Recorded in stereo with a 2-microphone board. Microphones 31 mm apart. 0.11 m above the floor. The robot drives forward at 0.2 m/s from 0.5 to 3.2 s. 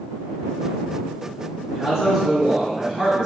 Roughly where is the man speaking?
Centre.